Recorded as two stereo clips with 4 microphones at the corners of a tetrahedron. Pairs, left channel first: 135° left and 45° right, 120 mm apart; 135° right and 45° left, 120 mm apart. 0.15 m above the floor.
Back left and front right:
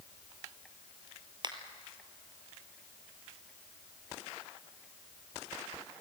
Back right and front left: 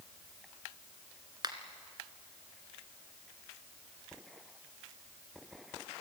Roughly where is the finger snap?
Ahead.